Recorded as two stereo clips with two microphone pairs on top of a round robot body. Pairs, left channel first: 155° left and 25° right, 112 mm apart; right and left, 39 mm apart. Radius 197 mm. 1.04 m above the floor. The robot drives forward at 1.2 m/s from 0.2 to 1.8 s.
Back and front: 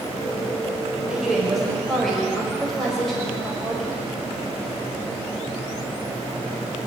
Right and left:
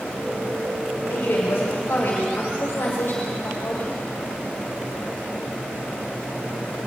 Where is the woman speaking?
115° right, 5.5 m; by 4.0 s 120° right, 6 m.